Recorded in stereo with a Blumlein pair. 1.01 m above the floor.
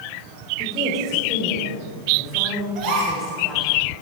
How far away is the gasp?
About 3 m.